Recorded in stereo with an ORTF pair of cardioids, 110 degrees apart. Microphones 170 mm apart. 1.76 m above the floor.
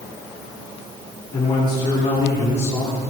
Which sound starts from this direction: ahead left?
A man speaking, at 1.3 s.